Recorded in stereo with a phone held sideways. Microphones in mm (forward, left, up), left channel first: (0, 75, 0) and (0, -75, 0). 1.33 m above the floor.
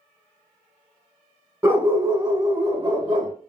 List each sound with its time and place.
1.6 s a dog barking: 15° right (ahead or behind), 1.2 m; by 3.3 s 30° right (ahead or behind), 1.3 m